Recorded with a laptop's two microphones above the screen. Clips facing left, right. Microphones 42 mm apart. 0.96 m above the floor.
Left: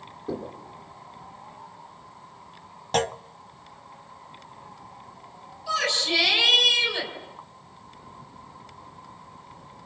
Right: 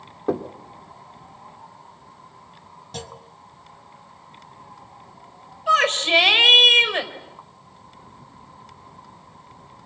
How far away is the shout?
About 4 m.